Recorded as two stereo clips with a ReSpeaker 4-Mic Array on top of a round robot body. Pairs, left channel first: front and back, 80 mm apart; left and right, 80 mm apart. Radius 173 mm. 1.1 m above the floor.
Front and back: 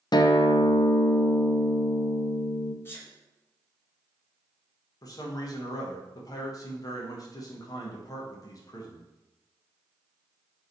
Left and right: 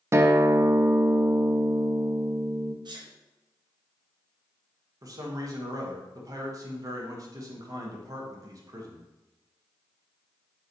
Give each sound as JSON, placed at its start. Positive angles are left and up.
{"t": 0.1, "sound": "a guitar", "azimuth_deg": -30, "distance_m": 0.5}
{"t": 2.9, "sound": "a sneeze", "azimuth_deg": -60, "distance_m": 1.8}
{"t": 5.0, "sound": "a man speaking", "azimuth_deg": -45, "distance_m": 1.5}